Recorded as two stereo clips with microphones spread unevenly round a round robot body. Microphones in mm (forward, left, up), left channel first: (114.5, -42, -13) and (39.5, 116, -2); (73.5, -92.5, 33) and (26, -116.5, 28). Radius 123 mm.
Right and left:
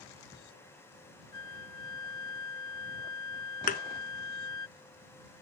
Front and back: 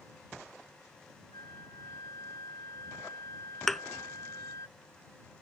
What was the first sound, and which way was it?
A flute, 85° left.